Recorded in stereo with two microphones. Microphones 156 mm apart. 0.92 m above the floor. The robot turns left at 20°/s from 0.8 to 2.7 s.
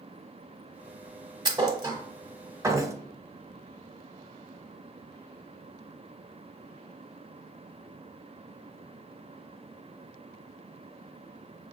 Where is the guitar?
No guitar in this recording.